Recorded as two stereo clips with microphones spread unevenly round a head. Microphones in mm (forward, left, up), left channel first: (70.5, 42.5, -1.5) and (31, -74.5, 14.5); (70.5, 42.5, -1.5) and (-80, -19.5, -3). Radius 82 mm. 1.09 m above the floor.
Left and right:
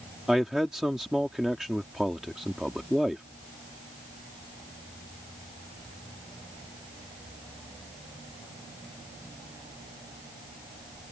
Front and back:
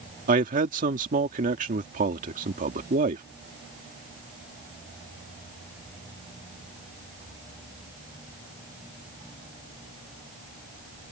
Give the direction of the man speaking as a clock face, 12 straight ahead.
7 o'clock.